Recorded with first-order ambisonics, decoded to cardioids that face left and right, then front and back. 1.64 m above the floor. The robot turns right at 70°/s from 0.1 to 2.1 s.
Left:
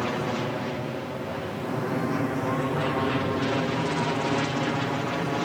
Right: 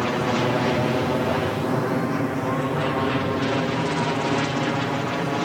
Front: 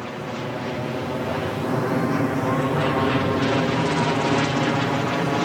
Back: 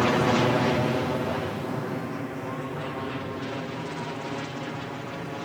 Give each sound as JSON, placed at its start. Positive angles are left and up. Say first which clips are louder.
{"t": 0.0, "sound": "an aircraft", "louder": "right 6 dB, back 8 dB", "azimuth_deg": -155}